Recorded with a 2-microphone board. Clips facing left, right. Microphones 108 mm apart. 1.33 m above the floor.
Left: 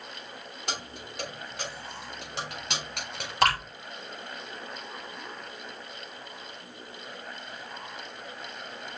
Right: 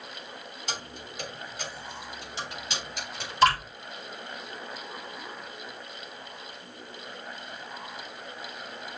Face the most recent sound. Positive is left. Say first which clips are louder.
# right 3 dB
turn(degrees=85)